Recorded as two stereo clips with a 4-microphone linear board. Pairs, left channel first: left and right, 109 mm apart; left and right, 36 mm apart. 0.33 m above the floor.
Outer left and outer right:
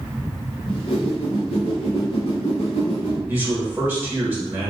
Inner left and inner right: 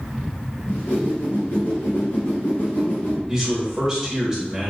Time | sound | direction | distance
0.7 | a whoosh | 80° left | 1.0 m
3.3 | a man speaking | 20° right (ahead or behind) | 0.8 m